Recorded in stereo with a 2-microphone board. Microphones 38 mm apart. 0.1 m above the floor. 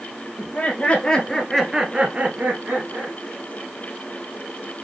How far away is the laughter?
About 2.5 m.